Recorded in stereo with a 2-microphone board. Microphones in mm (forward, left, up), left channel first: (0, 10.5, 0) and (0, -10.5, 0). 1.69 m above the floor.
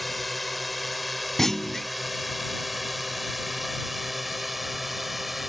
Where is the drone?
Centre (ahead or behind); by 5.5 s 10° right (ahead or behind).